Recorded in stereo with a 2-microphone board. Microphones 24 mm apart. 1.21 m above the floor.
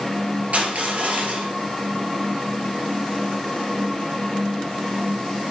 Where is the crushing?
60° right (ahead or behind), 2.5 m.